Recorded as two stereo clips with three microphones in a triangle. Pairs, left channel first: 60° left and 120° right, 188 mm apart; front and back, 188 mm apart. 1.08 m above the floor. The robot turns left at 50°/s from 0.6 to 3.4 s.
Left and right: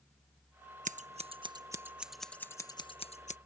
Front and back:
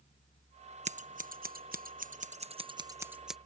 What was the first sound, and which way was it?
Scissors, 145° right.